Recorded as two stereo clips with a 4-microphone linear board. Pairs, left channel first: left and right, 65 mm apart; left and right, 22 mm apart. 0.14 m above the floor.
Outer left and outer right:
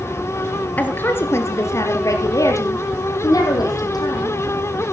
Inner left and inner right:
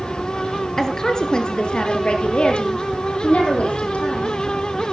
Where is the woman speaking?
25° left (ahead or behind), 2 m; by 4.4 s 75° left (ahead or behind), 5 m.